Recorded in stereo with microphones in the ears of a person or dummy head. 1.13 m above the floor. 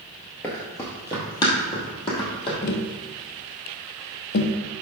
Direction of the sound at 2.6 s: 60° left (ahead or behind).